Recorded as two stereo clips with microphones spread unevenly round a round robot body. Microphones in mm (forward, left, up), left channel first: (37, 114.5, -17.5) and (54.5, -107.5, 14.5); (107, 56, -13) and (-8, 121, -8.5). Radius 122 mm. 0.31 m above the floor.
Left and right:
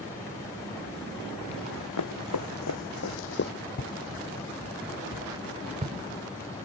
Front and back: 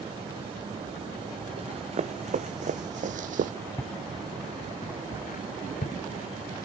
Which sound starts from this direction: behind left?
Running footsteps, at 1.6 s.